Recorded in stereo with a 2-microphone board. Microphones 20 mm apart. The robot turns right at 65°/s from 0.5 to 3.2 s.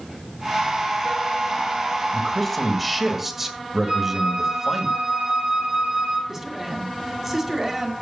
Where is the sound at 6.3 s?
15° right (ahead or behind), 2.5 m.